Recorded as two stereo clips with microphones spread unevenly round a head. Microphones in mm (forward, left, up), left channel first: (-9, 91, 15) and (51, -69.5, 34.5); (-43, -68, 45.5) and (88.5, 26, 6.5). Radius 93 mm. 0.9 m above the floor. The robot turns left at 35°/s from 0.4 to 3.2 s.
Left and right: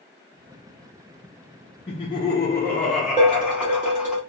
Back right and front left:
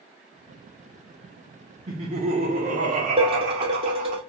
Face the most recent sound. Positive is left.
turn(degrees=-25)